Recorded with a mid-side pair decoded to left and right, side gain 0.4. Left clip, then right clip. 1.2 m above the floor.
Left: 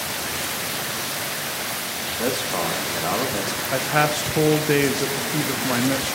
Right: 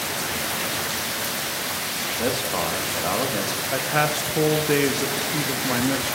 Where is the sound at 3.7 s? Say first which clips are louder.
Left 2 dB; 20° left, 0.6 m.